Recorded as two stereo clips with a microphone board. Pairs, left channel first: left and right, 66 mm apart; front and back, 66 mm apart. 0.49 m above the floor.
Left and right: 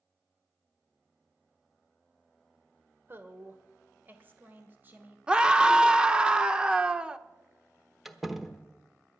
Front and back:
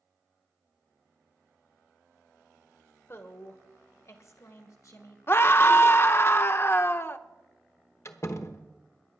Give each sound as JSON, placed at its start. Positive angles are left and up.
{"t": 3.1, "sound": "a woman speaking", "azimuth_deg": -40, "distance_m": 1.8}
{"t": 5.3, "sound": "a scream", "azimuth_deg": -20, "distance_m": 0.8}
{"t": 8.1, "sound": "a door slam", "azimuth_deg": -5, "distance_m": 1.1}